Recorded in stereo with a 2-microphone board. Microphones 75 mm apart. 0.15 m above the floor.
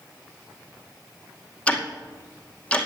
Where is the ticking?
15° left (ahead or behind), 2 m.